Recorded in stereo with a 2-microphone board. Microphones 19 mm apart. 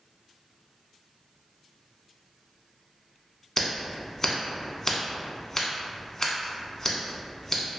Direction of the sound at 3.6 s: 20° left (ahead or behind).